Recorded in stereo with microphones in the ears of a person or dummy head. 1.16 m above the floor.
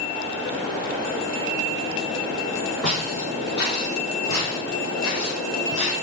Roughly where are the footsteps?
Centre.